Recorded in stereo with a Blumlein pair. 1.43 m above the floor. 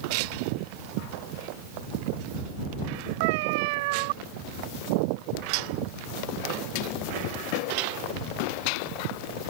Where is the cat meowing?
50° right.